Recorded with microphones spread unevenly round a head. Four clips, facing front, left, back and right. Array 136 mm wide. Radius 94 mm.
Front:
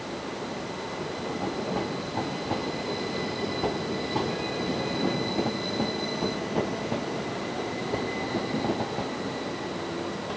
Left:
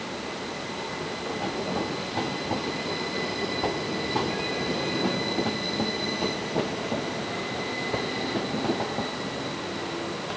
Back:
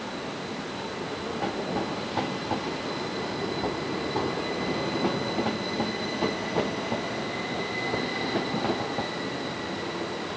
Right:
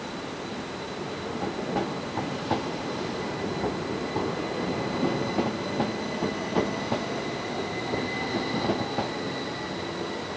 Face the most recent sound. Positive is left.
No sound to turn to.